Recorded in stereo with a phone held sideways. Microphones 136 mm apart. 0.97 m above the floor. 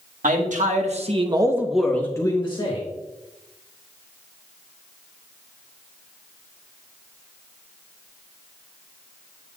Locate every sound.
0.2 s a man speaking: 75° right (ahead or behind), 1.8 m; by 2.8 s 40° left (ahead or behind), 1.7 m